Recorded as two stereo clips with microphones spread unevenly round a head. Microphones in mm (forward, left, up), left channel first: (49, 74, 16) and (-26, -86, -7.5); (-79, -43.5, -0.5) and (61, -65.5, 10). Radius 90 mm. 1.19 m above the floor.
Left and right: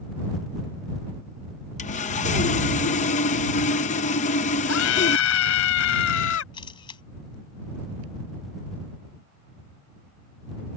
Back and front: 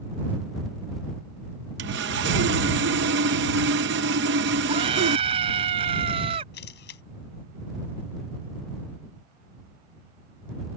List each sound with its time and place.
1.8 s sawing: 10° left
4.7 s a scream: 55° left
6.5 s a camera shutter: 130° left